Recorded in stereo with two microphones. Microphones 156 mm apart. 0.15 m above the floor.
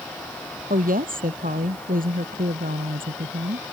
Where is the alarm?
No alarm in this recording.